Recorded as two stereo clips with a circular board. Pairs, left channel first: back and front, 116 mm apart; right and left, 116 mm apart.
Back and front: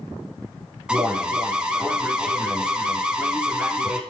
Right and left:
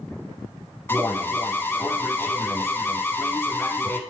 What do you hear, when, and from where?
0.9 s an alarm: 65° right, 0.7 m